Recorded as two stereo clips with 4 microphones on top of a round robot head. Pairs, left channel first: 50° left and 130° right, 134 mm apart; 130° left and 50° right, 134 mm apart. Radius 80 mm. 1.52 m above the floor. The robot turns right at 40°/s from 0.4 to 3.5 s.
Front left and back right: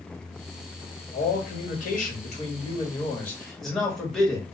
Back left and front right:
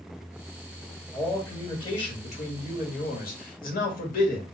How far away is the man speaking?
About 1.2 m.